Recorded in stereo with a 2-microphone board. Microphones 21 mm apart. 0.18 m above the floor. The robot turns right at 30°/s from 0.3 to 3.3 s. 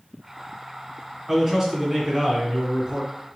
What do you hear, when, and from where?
1.3 s a man speaking: 165° right, 1.6 m; by 3.1 s 110° right, 1.6 m